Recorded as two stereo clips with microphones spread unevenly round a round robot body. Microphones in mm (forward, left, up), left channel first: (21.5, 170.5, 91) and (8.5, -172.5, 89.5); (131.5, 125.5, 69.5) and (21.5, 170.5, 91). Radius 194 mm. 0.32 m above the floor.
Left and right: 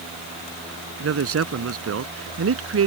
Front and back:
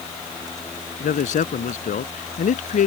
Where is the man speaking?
40° right.